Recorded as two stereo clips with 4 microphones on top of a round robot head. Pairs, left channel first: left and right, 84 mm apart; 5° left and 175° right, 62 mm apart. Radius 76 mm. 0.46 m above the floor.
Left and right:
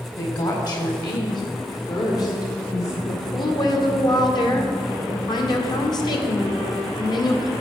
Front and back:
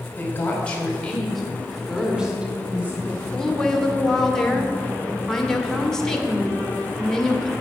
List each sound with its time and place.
0.2 s a woman speaking: 60° left, 2.5 m; by 2.9 s 125° left, 2 m
3.0 s a woman speaking: 80° left, 1.4 m